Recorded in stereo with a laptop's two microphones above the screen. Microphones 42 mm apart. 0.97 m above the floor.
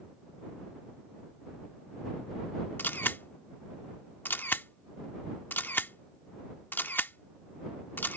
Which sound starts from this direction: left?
A camera shutter, at 2.8 s.